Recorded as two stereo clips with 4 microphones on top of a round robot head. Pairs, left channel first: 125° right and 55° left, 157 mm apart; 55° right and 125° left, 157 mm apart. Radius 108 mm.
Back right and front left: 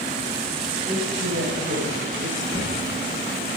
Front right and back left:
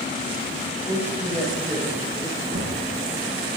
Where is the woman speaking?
50° left, 3.5 m; by 2.4 s 15° left, 2.5 m.